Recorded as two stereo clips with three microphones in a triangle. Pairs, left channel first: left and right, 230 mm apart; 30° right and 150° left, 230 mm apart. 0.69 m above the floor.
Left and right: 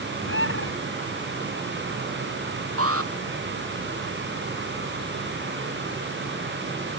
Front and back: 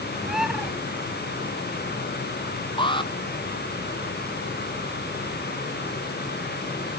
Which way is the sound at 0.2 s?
60° left.